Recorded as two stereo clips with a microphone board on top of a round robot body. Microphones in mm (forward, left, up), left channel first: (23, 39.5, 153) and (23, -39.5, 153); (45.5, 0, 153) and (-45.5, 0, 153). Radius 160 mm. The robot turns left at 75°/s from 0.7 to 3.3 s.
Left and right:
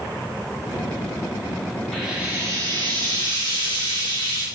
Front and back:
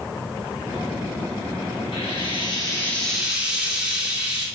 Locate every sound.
1.9 s frying: 5° left, 4 m; by 4.5 s 100° right, 4 m